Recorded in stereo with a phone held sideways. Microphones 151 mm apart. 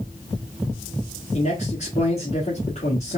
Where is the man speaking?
45° left (ahead or behind), 1.4 m.